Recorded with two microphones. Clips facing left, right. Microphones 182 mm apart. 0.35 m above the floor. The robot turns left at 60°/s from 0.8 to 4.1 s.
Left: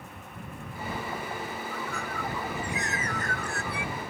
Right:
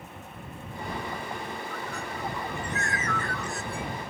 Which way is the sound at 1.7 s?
130° right.